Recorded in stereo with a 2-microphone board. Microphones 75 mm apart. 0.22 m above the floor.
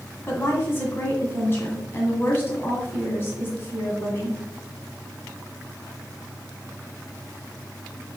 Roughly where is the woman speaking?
Left.